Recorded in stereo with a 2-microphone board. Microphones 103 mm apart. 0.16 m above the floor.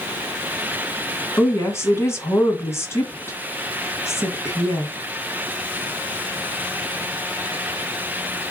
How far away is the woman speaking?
About 1.2 m.